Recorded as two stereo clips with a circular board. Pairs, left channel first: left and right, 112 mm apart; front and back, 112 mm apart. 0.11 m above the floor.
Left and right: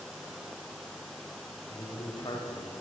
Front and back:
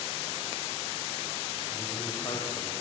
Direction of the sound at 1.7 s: 45° left.